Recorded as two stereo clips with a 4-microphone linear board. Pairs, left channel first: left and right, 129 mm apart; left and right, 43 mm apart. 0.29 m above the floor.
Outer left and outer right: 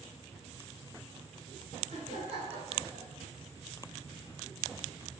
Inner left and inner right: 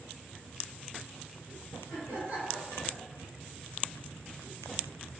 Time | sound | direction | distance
1.9 | laughter | 65° right (ahead or behind) | 2 m